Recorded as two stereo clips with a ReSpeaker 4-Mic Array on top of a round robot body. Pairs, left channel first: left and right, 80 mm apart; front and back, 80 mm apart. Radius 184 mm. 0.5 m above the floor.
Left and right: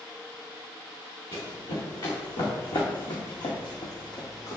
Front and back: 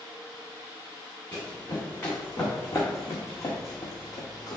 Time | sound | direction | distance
1.3 | running footsteps | 65° left | 3 m